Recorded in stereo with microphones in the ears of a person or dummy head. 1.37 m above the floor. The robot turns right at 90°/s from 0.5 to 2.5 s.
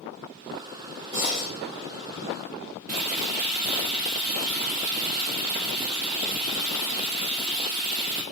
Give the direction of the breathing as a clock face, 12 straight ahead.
1 o'clock.